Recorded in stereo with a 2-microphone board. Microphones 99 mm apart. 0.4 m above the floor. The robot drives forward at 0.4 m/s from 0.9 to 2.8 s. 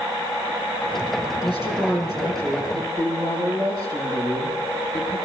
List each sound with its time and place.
1.4 s a woman speaking: 45° right (ahead or behind), 8 m; by 5.2 s 40° right (ahead or behind), 8 m